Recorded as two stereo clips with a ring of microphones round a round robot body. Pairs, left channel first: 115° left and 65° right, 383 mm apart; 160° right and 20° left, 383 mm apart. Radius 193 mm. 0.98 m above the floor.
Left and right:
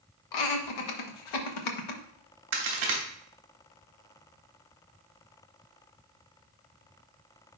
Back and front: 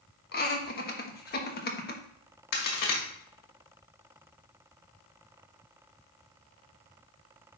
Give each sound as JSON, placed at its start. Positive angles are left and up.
{"t": 0.3, "sound": "laughter", "azimuth_deg": 135, "distance_m": 1.3}
{"t": 2.5, "sound": "a crack", "azimuth_deg": -115, "distance_m": 1.8}